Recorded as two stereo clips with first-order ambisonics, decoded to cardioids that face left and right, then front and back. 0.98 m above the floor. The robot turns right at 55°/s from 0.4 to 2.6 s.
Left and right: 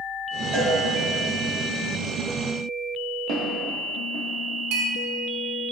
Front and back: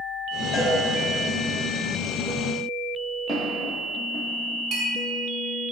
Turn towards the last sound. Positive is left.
turn(degrees=-110)